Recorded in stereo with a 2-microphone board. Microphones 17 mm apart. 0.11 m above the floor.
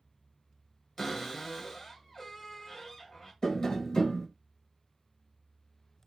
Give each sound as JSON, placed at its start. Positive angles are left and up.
{"t": 1.0, "sound": "a cupboard door", "side_deg": 15, "distance_m": 1.7}
{"t": 3.4, "sound": "tapping", "side_deg": 40, "distance_m": 1.0}